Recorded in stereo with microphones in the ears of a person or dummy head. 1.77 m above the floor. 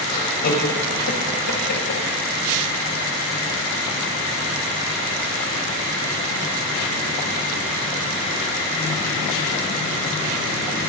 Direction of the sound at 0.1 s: 55° left (ahead or behind).